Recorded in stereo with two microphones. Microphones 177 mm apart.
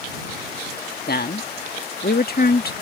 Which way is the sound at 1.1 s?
60° left (ahead or behind).